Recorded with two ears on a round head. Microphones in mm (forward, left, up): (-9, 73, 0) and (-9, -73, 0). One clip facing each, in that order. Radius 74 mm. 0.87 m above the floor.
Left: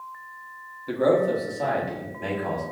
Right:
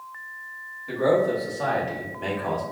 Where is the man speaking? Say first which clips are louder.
Even; 50° left (ahead or behind), 1.0 m; by 2.6 s centre (ahead or behind), 2.5 m.